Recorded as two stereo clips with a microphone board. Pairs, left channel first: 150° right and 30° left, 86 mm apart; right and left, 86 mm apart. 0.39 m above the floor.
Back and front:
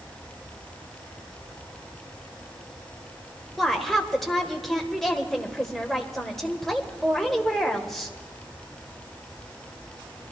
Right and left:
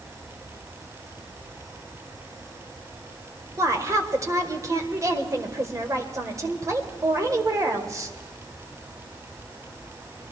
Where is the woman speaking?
125° left, 1.5 m.